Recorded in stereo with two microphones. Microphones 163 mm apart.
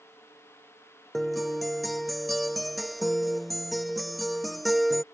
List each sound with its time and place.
1.1 s a guitar: centre (ahead or behind)